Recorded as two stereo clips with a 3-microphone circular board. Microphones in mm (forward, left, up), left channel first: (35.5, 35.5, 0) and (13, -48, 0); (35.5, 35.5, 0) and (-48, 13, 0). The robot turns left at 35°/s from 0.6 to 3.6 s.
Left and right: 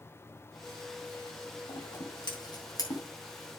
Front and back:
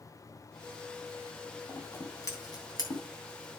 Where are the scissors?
80° left, 3 m; by 3.0 s 35° left, 3 m.